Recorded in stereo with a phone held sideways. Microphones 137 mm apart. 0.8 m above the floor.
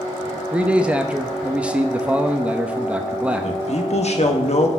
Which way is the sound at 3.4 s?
55° left (ahead or behind).